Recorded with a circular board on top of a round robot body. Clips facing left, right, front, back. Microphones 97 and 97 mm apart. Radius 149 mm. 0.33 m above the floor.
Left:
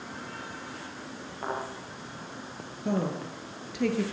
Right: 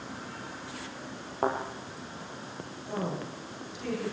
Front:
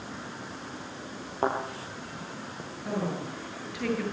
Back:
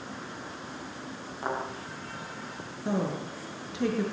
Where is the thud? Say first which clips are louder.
Right 5 dB, front 5 dB; 40° right, 6 m.